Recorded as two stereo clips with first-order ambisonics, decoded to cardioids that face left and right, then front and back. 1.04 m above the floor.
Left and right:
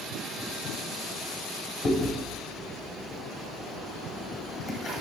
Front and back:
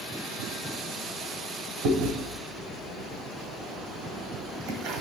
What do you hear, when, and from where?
1.8 s chewing: 165° left, 1.4 m